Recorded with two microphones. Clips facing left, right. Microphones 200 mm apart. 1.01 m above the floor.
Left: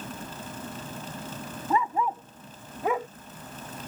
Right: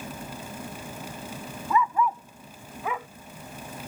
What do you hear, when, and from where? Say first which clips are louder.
1.7 s a dog barking: right 2 dB; 35° left (ahead or behind); by 3.1 s 45° left (ahead or behind)